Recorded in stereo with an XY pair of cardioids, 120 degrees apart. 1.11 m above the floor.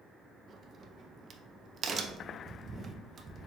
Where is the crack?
40° right, 0.5 m.